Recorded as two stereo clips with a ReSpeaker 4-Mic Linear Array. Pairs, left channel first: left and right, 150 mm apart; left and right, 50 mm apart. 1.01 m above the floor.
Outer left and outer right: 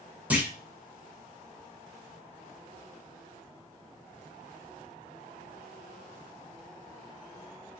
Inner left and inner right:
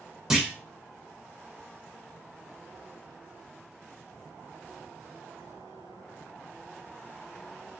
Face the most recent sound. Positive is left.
turn(degrees=-10)  # may be behind; listen again after turning